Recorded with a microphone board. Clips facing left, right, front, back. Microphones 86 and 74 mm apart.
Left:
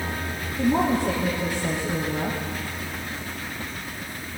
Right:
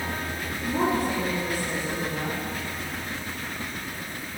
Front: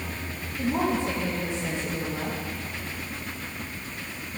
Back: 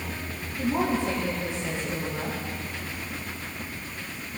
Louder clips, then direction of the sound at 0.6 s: Left 4 dB, even; 85° left.